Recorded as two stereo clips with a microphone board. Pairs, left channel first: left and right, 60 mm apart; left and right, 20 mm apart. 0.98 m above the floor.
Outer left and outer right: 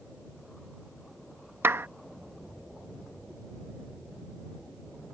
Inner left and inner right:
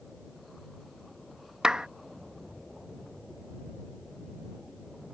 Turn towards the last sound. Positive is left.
turn(degrees=-40)  # may be behind; listen again after turning